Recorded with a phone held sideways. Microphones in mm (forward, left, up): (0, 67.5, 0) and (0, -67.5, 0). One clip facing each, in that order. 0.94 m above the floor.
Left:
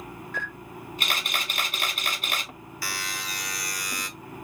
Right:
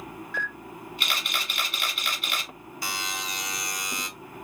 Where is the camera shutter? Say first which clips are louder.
Right 1 dB; 45° left (ahead or behind), 1.1 m.